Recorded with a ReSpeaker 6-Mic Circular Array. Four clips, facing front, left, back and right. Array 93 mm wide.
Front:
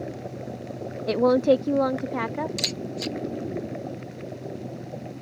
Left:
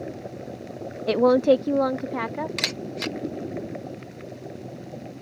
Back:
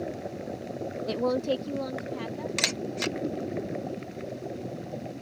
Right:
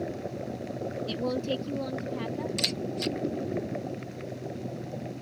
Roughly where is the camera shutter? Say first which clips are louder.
Left 1 dB, even; behind left.